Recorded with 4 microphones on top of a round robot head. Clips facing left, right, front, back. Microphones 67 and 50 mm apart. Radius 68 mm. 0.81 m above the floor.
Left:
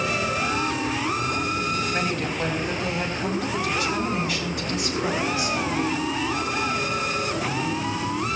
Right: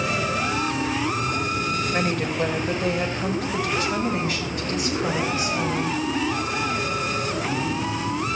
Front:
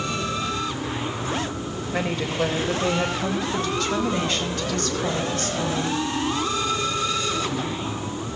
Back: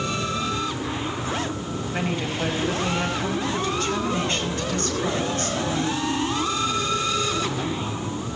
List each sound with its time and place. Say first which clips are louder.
1.9 s a woman speaking: right 2 dB, front 2 dB; 40° right, 4 m; by 6.0 s 35° right, 6 m